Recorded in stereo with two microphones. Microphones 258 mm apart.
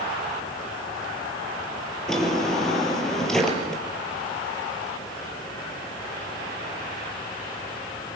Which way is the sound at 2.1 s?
Centre (ahead or behind).